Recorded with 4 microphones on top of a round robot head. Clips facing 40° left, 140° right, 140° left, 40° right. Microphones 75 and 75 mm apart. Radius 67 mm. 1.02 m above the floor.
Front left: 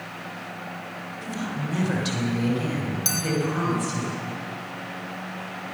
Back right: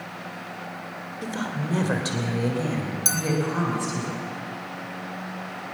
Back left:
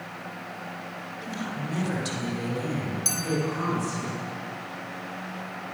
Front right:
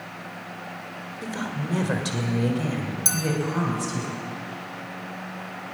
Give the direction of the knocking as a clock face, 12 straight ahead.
I don't hear knocking.